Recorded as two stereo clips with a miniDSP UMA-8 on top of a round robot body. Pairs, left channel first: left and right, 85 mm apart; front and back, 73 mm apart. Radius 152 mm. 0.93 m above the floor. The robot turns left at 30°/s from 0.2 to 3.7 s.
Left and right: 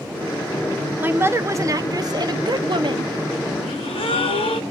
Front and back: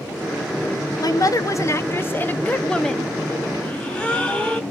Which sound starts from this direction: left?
A gasp, at 3.6 s.